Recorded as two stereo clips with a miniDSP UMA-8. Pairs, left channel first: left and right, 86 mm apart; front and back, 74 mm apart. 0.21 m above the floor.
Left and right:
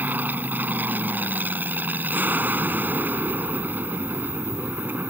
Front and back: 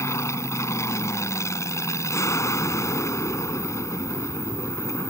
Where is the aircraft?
30° right.